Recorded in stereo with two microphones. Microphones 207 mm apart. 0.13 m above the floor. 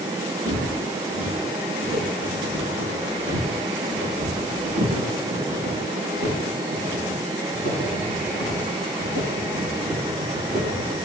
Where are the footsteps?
85° right, 6.5 m; by 11.0 s 60° right (ahead or behind), 11 m.